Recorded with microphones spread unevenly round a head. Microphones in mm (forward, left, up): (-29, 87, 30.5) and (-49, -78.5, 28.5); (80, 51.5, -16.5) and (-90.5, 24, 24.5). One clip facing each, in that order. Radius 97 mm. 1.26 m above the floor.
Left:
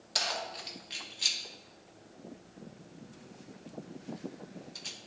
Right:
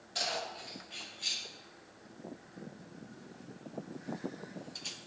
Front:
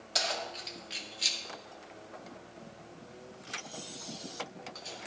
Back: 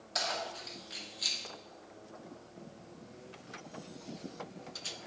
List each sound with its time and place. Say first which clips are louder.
0.1 s keys jangling: left 1 dB, front 1 dB; 65° left, 2 m; by 5.0 s 175° left, 1.0 m